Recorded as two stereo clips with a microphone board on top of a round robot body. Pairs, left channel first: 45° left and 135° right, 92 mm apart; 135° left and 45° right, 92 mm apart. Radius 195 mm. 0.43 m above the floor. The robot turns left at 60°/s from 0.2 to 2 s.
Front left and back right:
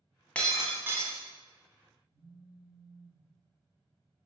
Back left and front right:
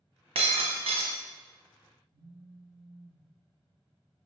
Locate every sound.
0.3 s breaking glass: 30° right, 1.3 m; by 1.2 s 85° right, 1.3 m
2.1 s a phone buzzing: 55° right, 1.9 m